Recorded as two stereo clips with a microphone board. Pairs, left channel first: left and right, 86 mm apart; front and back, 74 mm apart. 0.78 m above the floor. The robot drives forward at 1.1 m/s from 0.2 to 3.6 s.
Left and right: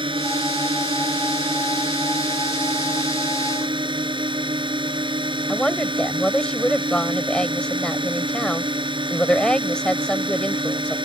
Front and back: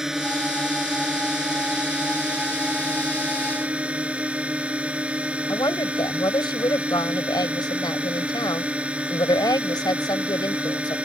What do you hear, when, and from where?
0.0 s a drone: 95° right; by 11.1 s 105° right
5.5 s a woman speaking: 10° left